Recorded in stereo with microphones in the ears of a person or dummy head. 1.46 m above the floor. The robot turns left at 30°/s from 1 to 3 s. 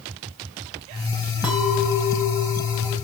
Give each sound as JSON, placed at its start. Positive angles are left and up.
{"t": 1.4, "sound": "a clink", "azimuth_deg": -10, "distance_m": 0.6}